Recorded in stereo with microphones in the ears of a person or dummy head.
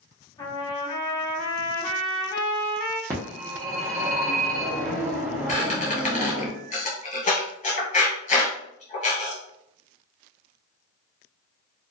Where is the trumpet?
20° left (ahead or behind), 1.0 m.